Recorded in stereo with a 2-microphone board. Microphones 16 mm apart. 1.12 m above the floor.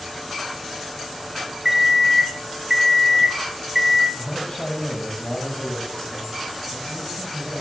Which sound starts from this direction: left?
A man speaking, at 4.1 s.